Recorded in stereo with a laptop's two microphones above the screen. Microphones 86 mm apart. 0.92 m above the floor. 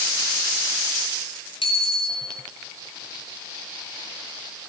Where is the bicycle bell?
85° left, 6.5 m.